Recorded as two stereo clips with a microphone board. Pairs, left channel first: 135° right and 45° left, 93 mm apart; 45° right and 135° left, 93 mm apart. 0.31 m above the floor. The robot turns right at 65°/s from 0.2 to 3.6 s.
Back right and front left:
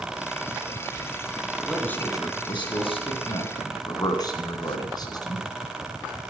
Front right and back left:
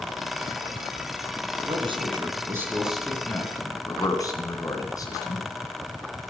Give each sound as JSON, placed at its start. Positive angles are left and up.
{"t": 1.6, "sound": "a man speaking", "azimuth_deg": 135, "distance_m": 3.0}